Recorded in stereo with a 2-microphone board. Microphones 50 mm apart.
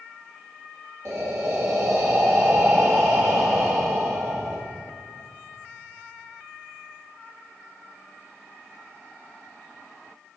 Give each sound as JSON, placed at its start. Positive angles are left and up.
{"t": 1.1, "sound": "breathing", "side_deg": -75, "distance_m": 1.1}